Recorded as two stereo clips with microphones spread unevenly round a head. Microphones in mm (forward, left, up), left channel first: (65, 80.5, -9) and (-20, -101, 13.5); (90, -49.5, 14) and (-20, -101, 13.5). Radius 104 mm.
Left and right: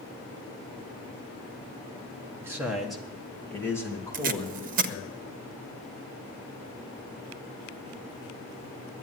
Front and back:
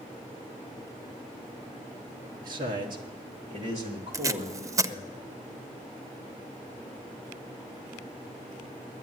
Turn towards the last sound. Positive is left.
turn(degrees=-105)